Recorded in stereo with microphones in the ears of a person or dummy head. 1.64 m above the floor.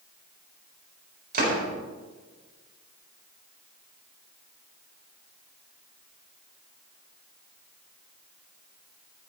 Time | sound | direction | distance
1.3 | a door slam | 50° right (ahead or behind) | 4 m